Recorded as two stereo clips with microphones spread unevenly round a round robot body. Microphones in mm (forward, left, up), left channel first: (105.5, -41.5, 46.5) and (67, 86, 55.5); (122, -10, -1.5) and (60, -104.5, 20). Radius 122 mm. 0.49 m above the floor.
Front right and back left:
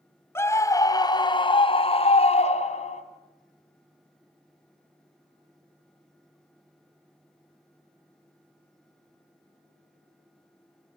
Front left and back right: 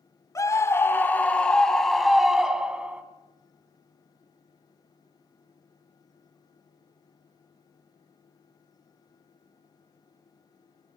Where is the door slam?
No door slam in this recording.